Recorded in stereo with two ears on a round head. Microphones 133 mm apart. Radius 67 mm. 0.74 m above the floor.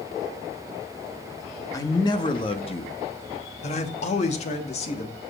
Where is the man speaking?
20° left (ahead or behind), 1.3 m; by 5.2 s 45° left (ahead or behind), 1.9 m.